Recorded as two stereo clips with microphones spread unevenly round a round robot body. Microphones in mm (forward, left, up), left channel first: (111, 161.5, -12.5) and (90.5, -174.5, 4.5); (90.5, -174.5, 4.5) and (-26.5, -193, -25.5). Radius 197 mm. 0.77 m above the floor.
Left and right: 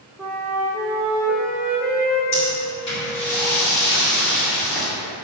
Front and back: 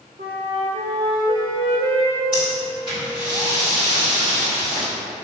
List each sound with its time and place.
0.2 s a flute: straight behind, 0.9 m
2.3 s breathing: 130° left, 2 m